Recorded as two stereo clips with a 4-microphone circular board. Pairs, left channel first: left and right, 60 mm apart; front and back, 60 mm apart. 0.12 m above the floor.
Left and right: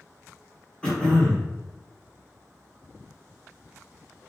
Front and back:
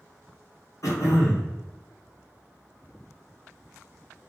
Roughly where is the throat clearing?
Ahead.